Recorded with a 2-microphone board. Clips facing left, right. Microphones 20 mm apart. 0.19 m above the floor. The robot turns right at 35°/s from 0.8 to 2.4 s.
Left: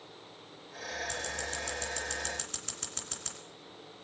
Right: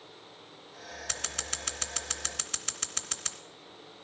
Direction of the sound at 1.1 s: 55° right (ahead or behind).